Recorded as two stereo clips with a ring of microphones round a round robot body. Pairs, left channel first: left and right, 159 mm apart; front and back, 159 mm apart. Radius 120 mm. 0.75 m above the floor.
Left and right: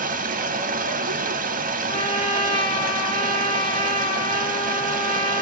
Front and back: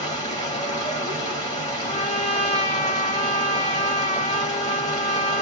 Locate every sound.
0.0 s running water: 65° right, 0.9 m
1.9 s a trumpet: 40° left, 1.6 m